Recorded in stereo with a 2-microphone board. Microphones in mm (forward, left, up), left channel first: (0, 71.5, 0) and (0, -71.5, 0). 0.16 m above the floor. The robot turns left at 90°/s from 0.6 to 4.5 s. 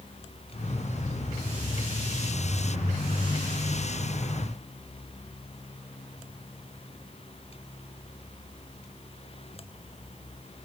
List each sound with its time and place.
Only background noise.